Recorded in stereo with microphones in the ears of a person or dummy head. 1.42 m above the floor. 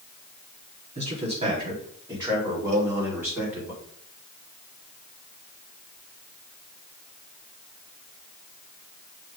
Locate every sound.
0.9 s a man speaking: 35° right (ahead or behind), 4 m; by 3.7 s 10° right (ahead or behind), 5 m
2.7 s a cowbell: 40° right (ahead or behind), 0.8 m